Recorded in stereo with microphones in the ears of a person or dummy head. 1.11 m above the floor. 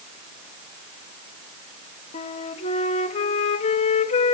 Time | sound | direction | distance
2.1 | a flute | 35° left (ahead or behind) | 1.1 m